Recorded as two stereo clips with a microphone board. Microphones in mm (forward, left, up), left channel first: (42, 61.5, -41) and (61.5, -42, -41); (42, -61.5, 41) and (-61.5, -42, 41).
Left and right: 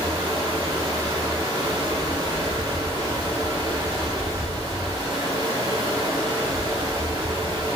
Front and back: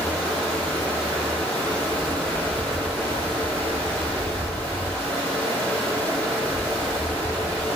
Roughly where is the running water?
Right.